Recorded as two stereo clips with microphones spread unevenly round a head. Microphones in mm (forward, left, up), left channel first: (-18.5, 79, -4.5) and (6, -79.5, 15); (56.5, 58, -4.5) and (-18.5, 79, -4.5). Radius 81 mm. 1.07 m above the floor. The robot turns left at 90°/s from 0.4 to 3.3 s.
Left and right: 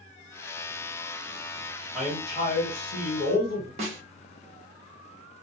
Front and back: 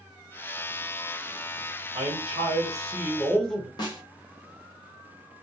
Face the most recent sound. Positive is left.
turn(degrees=-30)